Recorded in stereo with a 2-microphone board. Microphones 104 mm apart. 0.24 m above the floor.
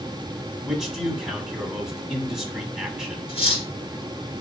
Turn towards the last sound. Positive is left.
turn(degrees=60)  # may be behind; listen again after turning